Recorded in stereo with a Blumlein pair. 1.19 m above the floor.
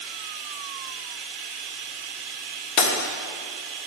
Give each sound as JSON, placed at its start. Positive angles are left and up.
{"t": 0.0, "sound": "running water", "azimuth_deg": -35, "distance_m": 0.9}
{"t": 2.8, "sound": "breaking glass", "azimuth_deg": 45, "distance_m": 1.4}